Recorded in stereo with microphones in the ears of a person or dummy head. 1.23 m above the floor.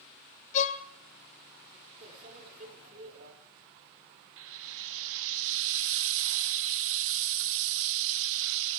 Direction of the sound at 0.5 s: 40° left (ahead or behind).